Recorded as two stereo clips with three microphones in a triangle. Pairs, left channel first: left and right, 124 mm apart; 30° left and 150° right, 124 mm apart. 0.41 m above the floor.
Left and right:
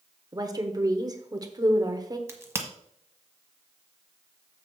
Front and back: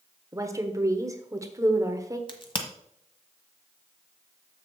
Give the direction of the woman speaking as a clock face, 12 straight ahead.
4 o'clock.